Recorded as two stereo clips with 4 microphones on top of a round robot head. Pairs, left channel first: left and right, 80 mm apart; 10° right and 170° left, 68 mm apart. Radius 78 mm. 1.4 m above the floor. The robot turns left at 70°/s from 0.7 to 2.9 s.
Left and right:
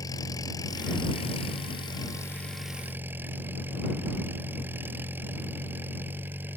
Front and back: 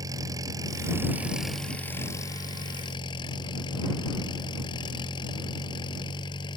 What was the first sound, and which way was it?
An engine running, 135° left.